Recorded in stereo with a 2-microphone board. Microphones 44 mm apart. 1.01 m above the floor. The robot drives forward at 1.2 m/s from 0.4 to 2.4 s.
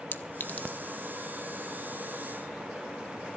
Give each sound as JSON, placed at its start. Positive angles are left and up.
{"t": 0.1, "sound": "a clink", "side_deg": 50, "distance_m": 0.5}